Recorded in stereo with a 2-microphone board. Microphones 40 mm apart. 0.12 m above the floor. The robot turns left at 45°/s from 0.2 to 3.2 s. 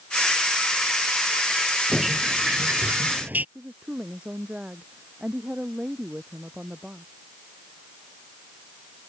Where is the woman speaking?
25° right (ahead or behind).